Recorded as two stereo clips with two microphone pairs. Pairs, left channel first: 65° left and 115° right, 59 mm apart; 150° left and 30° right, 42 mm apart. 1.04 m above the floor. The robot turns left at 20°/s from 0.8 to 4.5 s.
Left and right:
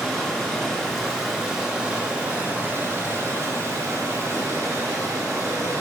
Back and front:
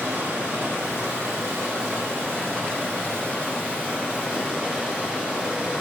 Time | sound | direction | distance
0.0 | running water | 20° right | 1.5 m